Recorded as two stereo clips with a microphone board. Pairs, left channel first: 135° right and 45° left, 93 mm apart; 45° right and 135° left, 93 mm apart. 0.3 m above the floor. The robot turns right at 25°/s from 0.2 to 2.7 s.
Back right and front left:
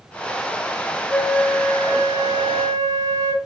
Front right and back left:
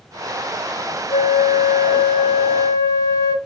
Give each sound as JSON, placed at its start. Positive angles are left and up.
{"t": 1.1, "sound": "a flute", "azimuth_deg": -40, "distance_m": 0.6}